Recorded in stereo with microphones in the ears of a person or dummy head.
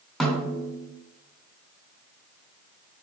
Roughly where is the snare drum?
Centre.